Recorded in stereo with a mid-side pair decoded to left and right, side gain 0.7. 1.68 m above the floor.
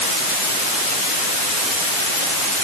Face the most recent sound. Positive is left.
No sound to turn to.